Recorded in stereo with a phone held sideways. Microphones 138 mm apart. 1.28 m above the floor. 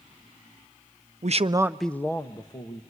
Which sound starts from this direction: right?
A man speaking, at 1.2 s.